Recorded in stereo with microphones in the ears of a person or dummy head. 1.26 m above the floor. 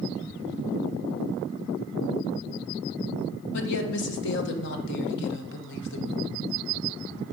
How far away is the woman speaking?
About 1.3 m.